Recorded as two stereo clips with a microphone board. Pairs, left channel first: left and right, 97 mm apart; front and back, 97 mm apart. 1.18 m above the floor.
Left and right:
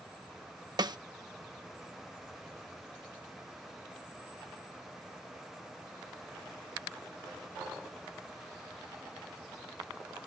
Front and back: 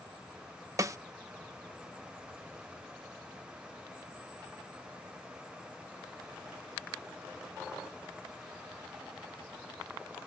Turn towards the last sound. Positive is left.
turn(degrees=-125)